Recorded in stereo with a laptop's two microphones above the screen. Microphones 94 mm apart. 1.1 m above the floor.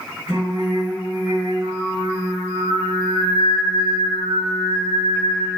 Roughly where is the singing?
Centre.